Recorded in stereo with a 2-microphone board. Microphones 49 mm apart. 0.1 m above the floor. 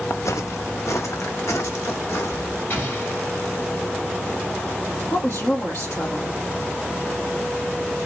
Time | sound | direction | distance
0.1 | footsteps | 80° left | 0.6 m
2.7 | an explosion | 45° left (ahead or behind) | 2.5 m
5.1 | a woman speaking | 60° left (ahead or behind) | 2.5 m